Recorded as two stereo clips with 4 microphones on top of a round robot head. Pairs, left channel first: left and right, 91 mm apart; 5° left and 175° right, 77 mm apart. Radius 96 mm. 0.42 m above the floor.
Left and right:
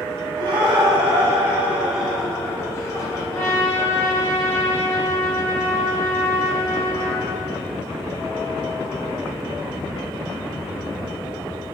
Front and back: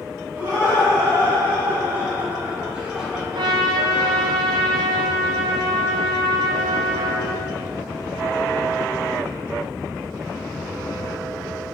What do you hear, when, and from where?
0.4 s laughter: 110° right, 2.0 m; by 3.5 s 100° left, 1.7 m
3.3 s a trumpet: 160° left, 0.9 m